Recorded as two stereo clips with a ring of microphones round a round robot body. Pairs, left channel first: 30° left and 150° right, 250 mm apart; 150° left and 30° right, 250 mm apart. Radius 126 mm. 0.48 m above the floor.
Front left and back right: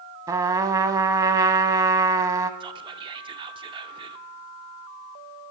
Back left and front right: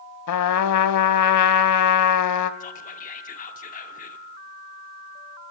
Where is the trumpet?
135° left, 0.6 m.